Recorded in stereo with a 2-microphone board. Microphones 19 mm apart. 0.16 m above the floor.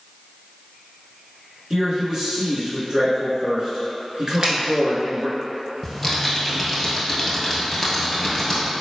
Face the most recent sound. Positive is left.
turn(degrees=0)  # may be behind; listen again after turning